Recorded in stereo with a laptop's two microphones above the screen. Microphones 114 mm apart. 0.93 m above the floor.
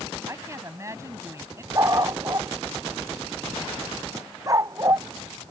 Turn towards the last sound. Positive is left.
turn(degrees=-30)  # may be behind; listen again after turning